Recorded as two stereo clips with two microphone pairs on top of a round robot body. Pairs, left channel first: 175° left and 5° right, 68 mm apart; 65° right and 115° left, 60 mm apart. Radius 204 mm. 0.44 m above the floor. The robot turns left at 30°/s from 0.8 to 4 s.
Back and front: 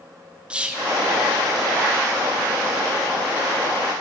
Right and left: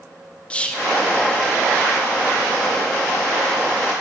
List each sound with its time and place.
0.5 s whispering: 5° left, 0.9 m; by 0.9 s straight ahead, 0.9 m